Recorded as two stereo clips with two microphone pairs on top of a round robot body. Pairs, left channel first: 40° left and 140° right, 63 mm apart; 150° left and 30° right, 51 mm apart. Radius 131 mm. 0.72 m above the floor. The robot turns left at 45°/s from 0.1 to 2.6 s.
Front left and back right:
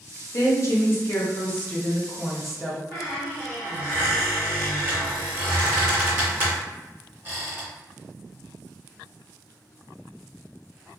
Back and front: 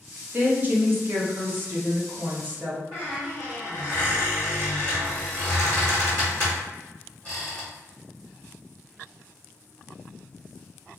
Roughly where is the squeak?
Right.